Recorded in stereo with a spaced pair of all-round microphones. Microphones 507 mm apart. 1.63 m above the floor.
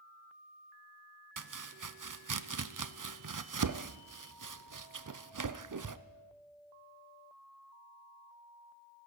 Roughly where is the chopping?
Right.